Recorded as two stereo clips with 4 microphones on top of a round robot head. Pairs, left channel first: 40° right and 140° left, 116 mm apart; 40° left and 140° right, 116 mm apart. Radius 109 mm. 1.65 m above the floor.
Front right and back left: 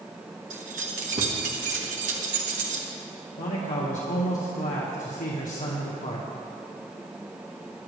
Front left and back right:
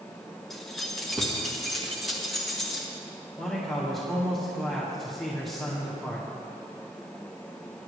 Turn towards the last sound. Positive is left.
turn(degrees=-45)